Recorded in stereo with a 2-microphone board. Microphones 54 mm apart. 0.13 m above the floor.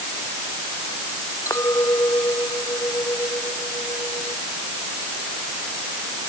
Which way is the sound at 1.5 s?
70° left (ahead or behind).